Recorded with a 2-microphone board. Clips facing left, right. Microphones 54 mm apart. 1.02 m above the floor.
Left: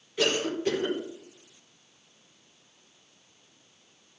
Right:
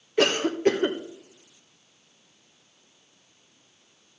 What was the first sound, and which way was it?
A cough, 45° right (ahead or behind).